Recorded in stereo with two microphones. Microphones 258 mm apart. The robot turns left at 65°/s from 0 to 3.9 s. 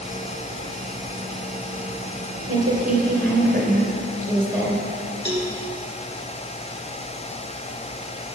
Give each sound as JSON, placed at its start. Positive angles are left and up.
{"t": 2.5, "sound": "a woman speaking", "azimuth_deg": -75, "distance_m": 2.5}
{"t": 5.2, "sound": "a cowbell", "side_deg": -40, "distance_m": 1.6}